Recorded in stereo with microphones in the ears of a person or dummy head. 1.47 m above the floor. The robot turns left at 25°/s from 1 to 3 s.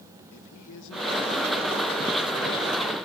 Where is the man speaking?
110° left, 1.6 m; by 3.0 s 60° left, 1.6 m.